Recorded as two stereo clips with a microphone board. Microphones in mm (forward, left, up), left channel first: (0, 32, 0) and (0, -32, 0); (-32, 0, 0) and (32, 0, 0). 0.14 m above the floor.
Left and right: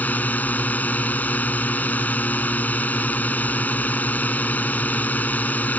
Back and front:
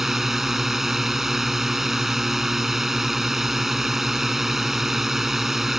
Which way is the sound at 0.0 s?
80° left.